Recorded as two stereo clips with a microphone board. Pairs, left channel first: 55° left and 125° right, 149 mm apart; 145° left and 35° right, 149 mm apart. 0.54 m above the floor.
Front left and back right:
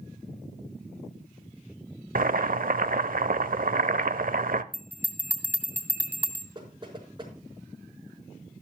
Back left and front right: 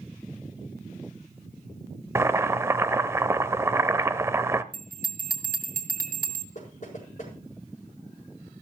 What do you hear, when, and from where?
2.1 s boiling: 105° right, 0.7 m
4.7 s a bell: 45° right, 2 m
6.5 s knocking: 175° left, 5 m